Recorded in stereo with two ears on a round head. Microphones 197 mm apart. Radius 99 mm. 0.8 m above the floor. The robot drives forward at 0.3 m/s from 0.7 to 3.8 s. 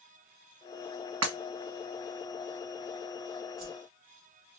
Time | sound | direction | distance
1.2 | breaking glass | 75° right (ahead or behind) | 1.9 m
3.6 | a whoosh | 45° right (ahead or behind) | 0.9 m